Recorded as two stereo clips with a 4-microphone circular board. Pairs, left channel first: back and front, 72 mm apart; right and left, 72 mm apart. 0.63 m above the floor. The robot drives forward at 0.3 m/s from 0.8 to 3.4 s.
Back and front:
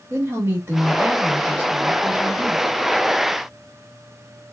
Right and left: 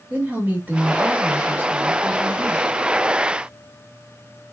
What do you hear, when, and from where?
0.1 s a woman speaking: 35° left, 1.3 m; by 2.6 s 70° left, 1.1 m